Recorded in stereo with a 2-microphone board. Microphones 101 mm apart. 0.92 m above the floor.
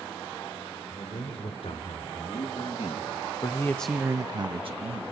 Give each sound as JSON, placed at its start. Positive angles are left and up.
{"t": 0.9, "sound": "a man speaking", "side_deg": 80, "distance_m": 4.5}